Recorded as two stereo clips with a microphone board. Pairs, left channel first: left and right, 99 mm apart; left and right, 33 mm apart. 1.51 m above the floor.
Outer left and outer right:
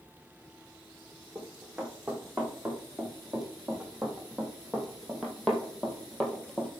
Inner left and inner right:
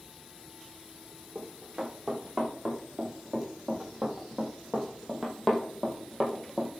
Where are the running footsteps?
10° right (ahead or behind), 4.5 m; by 6.7 s 10° left (ahead or behind), 1.9 m.